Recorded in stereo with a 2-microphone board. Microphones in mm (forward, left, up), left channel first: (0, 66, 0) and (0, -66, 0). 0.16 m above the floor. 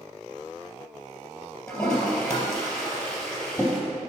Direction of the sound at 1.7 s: 5° left (ahead or behind).